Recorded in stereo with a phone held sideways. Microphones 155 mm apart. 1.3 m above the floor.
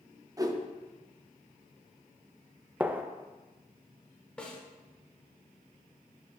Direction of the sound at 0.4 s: 25° right (ahead or behind).